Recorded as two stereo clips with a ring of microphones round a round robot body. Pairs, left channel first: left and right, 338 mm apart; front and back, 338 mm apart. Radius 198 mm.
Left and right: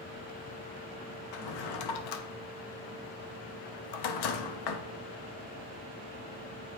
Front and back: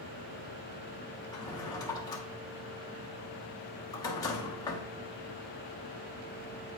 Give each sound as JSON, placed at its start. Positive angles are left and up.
{"t": 1.3, "sound": "a drawer", "azimuth_deg": 80, "distance_m": 0.8}